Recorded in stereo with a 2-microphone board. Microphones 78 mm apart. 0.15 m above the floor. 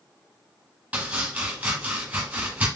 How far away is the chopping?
About 1.4 m.